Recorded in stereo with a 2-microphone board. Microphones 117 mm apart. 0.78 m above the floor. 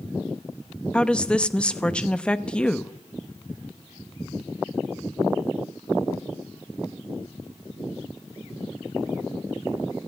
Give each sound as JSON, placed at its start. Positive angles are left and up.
{"t": 0.9, "sound": "a woman speaking", "side_deg": 5, "distance_m": 0.6}